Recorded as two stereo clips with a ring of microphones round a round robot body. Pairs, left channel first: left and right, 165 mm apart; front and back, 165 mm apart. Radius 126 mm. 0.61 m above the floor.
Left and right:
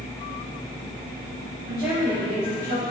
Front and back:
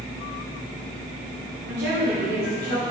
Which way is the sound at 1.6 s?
170° right.